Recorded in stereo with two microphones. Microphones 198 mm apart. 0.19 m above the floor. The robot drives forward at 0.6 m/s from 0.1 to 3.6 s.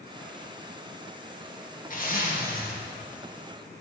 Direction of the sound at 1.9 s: 50° left (ahead or behind).